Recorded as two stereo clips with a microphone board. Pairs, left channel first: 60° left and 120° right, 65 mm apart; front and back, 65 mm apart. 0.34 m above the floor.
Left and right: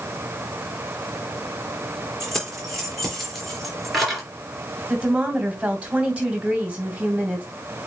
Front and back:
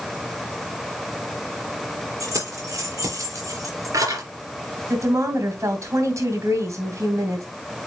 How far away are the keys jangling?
About 4.5 m.